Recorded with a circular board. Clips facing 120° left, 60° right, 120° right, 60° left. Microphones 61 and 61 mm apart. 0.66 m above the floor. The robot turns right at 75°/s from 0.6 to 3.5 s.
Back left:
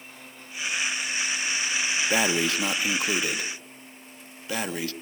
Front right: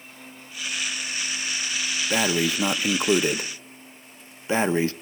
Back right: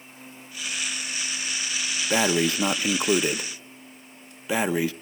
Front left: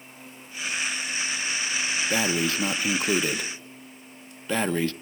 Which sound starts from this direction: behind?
Breathing, at 2.1 s.